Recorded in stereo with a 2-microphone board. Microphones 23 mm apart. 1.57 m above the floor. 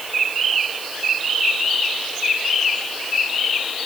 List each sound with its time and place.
Only background noise.